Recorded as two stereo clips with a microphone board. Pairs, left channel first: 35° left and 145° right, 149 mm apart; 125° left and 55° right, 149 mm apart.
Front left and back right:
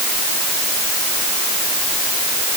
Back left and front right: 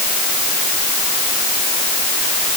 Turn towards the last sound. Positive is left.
No sound to turn to.